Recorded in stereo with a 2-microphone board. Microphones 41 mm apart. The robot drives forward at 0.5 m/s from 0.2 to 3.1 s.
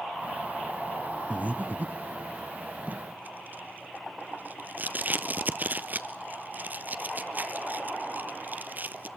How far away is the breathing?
About 1.0 m.